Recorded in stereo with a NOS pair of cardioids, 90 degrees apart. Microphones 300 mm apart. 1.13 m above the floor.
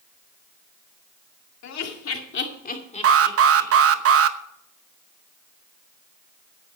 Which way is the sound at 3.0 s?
50° right.